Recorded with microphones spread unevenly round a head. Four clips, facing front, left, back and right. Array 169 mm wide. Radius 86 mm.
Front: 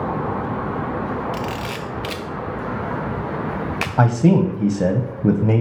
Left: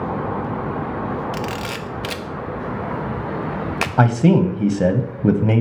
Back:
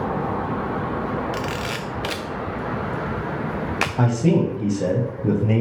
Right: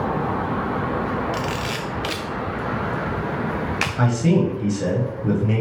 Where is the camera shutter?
140° left, 0.6 m.